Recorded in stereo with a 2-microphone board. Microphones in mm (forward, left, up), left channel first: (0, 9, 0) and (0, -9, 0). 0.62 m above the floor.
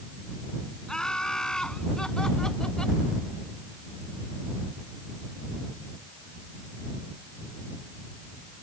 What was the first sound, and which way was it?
Laughter, 50° left (ahead or behind).